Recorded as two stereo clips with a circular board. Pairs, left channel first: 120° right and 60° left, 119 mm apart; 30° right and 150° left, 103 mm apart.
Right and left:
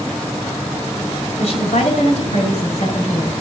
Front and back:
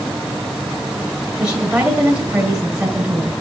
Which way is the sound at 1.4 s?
130° right.